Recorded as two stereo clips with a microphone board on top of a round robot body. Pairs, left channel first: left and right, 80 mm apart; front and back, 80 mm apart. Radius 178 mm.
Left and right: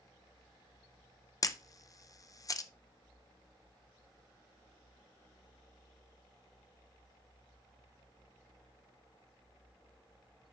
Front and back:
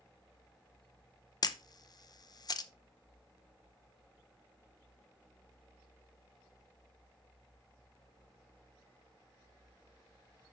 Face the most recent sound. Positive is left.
turn(degrees=40)